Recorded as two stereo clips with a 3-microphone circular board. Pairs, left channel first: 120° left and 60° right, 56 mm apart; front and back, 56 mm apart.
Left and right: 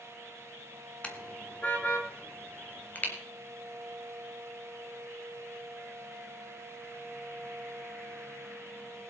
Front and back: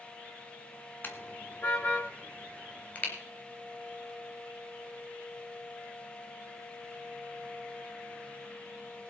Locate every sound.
1.0 s a car horn: 50° left, 2 m; by 3.1 s 60° left, 3.5 m